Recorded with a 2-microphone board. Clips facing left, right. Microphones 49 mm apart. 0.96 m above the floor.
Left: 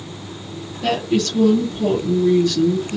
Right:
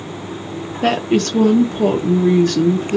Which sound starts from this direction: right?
A woman speaking, at 0.8 s.